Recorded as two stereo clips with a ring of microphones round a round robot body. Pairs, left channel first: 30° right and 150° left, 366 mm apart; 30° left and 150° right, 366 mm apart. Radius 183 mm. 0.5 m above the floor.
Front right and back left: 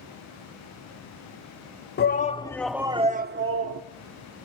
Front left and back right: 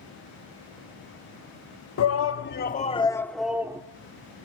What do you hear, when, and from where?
2.0 s a shout: 15° left, 1.0 m; by 3.8 s 135° left, 1.1 m